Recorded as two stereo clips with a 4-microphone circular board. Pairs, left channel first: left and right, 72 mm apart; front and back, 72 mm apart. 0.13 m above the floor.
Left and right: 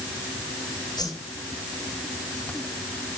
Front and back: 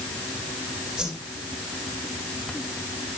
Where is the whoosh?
100° left, 5 m.